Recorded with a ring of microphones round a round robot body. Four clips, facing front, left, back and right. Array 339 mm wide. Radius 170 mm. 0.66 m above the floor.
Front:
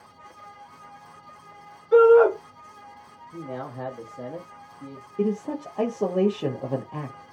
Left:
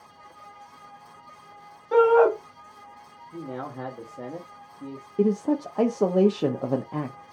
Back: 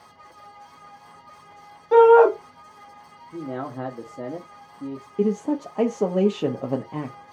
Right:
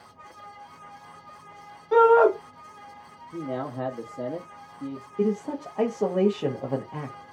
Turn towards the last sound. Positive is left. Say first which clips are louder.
# left 4 dB, back 3 dB
turn(degrees=125)